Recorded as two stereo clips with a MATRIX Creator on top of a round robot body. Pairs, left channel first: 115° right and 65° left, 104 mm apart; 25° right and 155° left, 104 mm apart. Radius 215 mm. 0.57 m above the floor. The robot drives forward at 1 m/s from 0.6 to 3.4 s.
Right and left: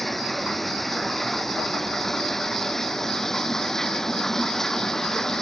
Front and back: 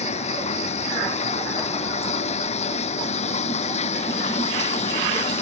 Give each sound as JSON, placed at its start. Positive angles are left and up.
{"t": 0.0, "sound": "running water", "azimuth_deg": -25}